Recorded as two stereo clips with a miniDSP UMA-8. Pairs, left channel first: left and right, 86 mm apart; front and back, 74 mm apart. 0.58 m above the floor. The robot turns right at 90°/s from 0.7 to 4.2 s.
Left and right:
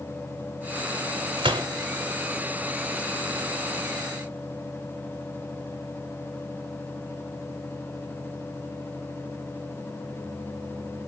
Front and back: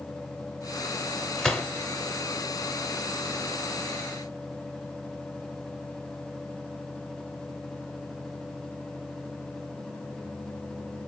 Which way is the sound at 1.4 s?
90° right.